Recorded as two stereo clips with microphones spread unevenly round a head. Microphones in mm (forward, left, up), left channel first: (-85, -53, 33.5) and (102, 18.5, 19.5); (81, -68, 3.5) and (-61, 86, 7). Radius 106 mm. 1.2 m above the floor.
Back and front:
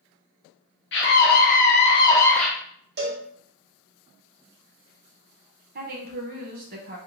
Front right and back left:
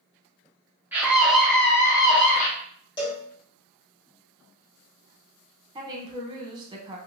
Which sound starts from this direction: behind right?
A scream, at 0.9 s.